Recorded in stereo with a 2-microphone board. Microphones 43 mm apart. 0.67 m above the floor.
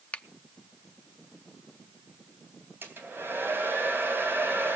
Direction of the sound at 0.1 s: 30° left (ahead or behind).